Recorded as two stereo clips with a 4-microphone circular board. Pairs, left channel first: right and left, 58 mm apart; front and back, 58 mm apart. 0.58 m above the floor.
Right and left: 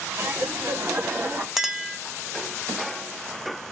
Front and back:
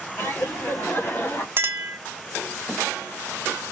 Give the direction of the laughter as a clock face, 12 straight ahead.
10 o'clock.